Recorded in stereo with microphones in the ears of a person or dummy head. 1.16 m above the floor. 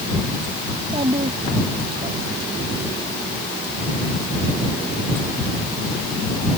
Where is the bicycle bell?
I don't hear a bicycle bell.